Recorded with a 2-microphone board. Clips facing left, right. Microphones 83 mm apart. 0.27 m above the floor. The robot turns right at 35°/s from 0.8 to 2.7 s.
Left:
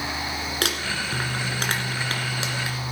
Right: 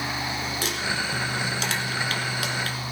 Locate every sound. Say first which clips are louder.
0.6 s crumpling: left 1 dB; 75° left (ahead or behind), 2 m; by 2.8 s 15° left (ahead or behind), 2 m